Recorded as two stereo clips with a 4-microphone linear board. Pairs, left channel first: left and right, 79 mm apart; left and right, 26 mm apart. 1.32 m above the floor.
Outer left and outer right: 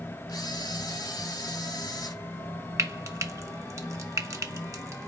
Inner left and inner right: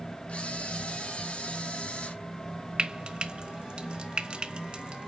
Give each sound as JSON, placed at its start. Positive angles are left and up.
{"t": 0.3, "sound": "a camera shutter", "side_deg": 60, "distance_m": 3.0}
{"t": 2.8, "sound": "frying", "side_deg": -45, "distance_m": 1.2}